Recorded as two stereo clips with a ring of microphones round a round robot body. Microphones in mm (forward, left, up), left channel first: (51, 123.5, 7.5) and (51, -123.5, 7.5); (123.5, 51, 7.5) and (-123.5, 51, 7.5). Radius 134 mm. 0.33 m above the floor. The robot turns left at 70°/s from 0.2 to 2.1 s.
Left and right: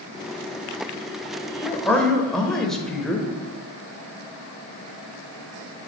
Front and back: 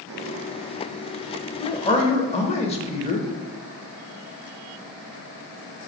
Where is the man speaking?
40° left, 0.8 m; by 3.3 s 5° left, 0.8 m.